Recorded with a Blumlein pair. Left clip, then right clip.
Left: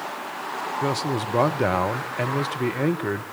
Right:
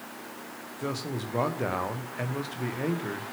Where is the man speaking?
70° left, 1.0 m.